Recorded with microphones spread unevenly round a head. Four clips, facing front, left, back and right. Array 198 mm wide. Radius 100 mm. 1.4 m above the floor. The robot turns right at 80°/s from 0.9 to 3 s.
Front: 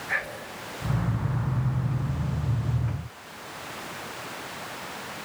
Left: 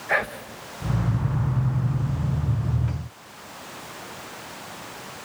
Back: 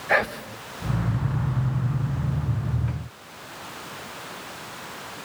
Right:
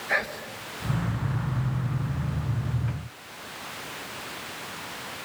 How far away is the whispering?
About 1.5 m.